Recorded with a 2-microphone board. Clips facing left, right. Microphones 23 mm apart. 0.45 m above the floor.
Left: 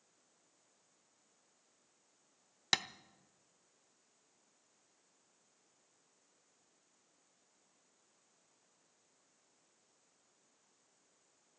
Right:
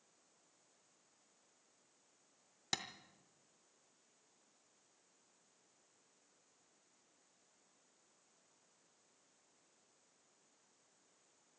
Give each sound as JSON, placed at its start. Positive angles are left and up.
{"t": 2.7, "sound": "tapping", "side_deg": 40, "distance_m": 0.5}